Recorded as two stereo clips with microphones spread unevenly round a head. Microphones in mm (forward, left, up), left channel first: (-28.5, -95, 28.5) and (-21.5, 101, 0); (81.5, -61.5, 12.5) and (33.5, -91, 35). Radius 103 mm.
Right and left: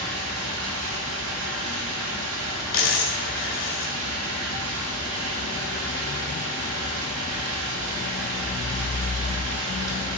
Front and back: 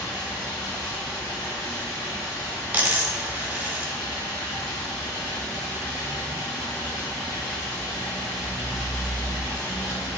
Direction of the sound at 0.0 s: 90° left.